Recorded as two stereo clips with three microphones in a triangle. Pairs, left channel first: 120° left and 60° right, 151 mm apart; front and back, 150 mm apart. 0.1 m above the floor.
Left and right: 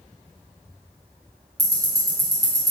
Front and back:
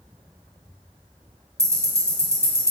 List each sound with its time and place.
1.6 s ticking: 115° right, 1.5 m